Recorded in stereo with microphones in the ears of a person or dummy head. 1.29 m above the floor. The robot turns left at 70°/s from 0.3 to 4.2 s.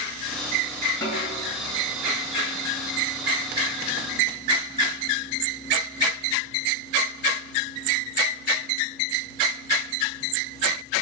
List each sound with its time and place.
1.0 s a snare drum: 160° left, 1.5 m; by 1.5 s 130° left, 1.5 m